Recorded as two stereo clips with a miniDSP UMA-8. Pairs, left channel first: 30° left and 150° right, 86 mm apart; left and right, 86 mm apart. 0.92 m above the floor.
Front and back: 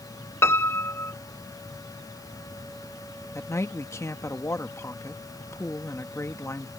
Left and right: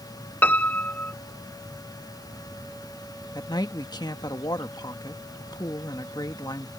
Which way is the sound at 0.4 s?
45° left.